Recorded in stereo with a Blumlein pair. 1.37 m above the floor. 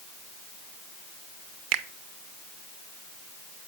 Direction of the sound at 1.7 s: 40° right.